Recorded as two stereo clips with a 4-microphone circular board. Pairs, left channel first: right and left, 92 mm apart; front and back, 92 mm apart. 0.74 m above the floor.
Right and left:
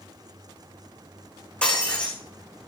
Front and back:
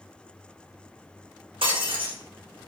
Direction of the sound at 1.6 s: 170° right.